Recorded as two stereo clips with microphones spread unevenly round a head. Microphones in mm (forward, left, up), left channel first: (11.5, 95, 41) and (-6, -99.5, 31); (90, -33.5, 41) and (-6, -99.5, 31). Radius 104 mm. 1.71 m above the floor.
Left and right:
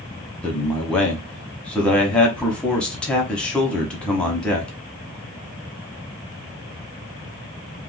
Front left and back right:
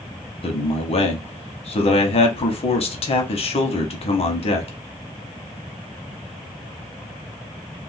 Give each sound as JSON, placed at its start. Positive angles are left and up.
{"t": 0.4, "sound": "a man speaking", "azimuth_deg": 0, "distance_m": 0.9}